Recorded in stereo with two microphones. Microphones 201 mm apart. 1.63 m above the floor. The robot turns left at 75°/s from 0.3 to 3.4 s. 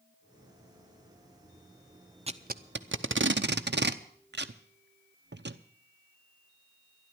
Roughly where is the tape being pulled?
Right.